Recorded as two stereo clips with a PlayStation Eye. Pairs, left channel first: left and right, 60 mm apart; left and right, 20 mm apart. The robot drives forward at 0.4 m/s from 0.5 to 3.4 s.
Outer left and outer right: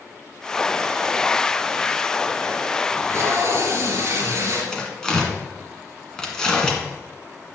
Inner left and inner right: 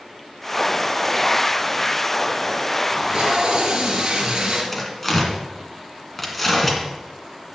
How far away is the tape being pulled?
About 2.5 m.